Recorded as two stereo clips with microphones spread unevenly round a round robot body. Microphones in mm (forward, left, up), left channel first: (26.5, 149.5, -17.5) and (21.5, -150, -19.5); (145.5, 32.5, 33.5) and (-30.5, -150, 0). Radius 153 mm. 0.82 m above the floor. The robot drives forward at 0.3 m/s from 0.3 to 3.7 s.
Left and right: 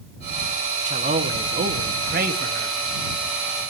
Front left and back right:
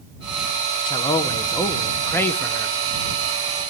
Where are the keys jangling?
I don't hear keys jangling.